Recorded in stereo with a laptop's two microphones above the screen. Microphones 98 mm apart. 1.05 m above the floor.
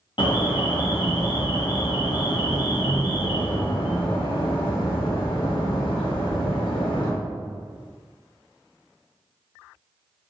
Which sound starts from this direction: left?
An alarm, at 0.2 s.